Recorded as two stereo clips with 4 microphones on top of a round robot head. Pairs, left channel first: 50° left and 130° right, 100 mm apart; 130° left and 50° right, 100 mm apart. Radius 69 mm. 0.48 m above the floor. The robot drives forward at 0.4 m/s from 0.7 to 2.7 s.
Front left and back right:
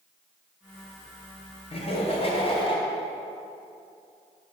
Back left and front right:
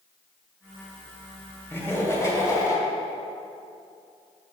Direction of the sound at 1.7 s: 65° left.